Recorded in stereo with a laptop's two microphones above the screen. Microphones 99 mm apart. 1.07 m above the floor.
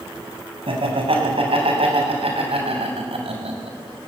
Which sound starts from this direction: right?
Laughter, at 0.7 s.